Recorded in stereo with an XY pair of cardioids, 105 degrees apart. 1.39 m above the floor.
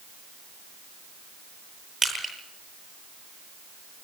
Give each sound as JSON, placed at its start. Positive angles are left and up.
{"t": 2.0, "sound": "crushing", "azimuth_deg": -25, "distance_m": 9.5}